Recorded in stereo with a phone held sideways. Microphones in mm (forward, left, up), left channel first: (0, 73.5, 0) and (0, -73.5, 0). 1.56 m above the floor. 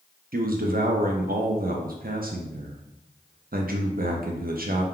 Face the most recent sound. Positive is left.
turn(degrees=-70)  # may be behind; listen again after turning